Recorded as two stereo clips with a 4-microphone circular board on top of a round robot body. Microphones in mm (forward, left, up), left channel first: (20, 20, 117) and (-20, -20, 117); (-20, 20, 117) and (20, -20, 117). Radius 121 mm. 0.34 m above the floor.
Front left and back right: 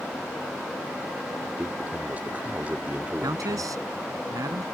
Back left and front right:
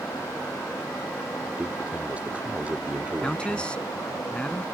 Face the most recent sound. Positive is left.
turn(degrees=-150)